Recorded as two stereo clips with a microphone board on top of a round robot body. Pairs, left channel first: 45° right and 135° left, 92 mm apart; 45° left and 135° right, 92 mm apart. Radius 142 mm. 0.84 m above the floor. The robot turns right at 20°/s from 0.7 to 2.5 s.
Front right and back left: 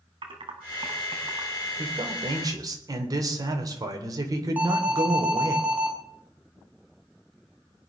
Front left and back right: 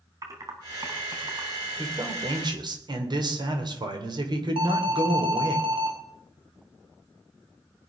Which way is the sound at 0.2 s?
170° left.